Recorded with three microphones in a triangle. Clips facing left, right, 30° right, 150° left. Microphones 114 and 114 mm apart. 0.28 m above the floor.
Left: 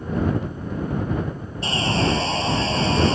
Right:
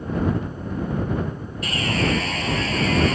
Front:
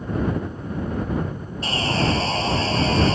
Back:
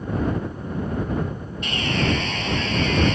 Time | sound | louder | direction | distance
1.6 | sawing | left 2 dB, front 1 dB | 30° left | ?